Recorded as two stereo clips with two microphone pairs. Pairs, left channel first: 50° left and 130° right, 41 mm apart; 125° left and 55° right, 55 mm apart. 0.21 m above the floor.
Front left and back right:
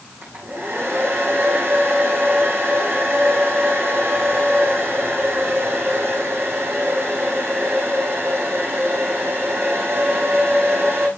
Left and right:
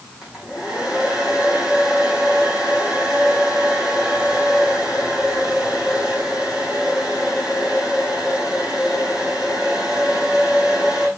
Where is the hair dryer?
135° right, 6.5 m.